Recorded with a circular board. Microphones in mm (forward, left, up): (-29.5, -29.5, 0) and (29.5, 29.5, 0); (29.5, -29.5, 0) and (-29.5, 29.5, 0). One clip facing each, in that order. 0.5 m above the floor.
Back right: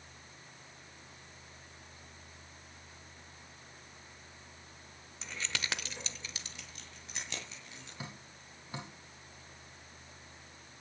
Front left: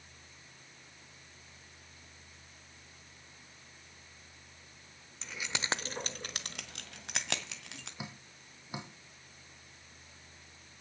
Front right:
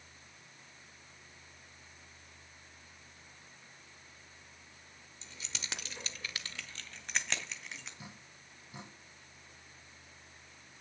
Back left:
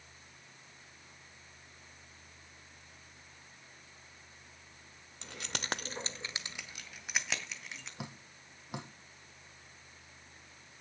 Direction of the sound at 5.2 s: 140° left.